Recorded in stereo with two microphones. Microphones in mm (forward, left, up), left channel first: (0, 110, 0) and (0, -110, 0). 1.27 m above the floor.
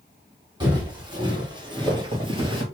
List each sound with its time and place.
0.6 s footsteps: 20° right (ahead or behind), 2.5 m